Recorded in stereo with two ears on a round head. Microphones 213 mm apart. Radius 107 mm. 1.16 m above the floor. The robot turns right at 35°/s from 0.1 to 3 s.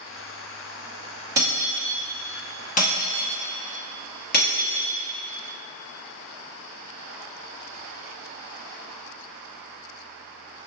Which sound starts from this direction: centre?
Breaking glass, at 1.4 s.